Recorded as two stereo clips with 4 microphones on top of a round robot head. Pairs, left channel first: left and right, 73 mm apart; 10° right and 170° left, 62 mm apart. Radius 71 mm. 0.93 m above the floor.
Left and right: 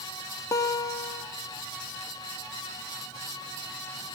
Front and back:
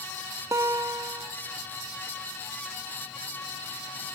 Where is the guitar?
130° left, 1.4 m.